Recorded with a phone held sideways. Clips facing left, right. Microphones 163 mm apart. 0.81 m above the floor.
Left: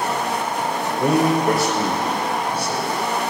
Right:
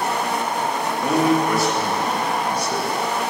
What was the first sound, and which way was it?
A man speaking, 65° left (ahead or behind).